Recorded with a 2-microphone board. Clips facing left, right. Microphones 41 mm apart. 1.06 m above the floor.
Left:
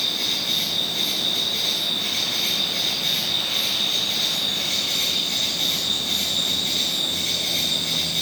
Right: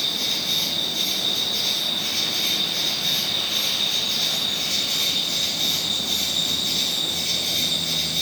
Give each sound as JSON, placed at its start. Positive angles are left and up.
{"t": 0.0, "sound": "an insect", "side_deg": 55, "distance_m": 4.5}